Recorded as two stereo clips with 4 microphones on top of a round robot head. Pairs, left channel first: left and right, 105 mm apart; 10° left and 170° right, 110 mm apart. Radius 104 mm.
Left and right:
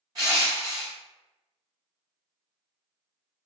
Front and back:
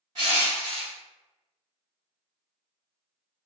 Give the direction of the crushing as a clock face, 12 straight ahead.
4 o'clock.